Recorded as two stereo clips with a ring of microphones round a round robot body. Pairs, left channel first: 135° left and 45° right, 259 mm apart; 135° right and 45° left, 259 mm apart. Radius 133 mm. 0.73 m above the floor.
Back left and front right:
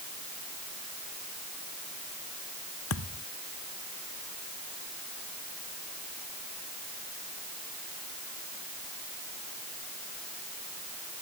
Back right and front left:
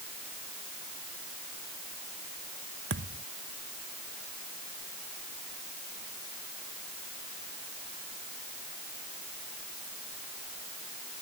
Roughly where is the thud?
Left.